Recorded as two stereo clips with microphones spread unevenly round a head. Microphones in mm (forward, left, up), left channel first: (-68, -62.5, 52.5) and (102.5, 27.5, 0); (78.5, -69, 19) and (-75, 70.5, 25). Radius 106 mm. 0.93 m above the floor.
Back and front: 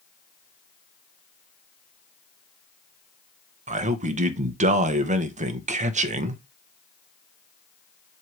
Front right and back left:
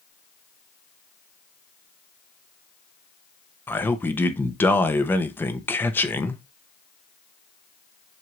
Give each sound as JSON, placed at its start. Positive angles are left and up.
{"t": 3.7, "sound": "a man speaking", "azimuth_deg": 35, "distance_m": 0.8}